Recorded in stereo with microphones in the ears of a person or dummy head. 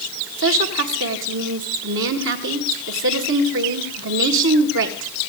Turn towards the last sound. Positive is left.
turn(degrees=-70)  # may be behind; listen again after turning